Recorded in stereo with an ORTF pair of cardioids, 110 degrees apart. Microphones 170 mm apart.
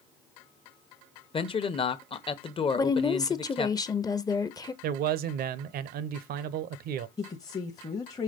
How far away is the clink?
I don't hear a clink.